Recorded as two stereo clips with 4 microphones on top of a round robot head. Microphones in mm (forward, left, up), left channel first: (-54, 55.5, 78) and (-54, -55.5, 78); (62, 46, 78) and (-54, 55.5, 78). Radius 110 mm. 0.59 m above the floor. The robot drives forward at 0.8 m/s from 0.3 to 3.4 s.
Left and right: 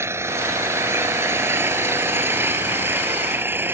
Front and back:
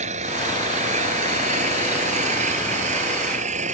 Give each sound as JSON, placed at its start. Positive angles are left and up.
{"t": 0.0, "sound": "an engine running", "azimuth_deg": -155}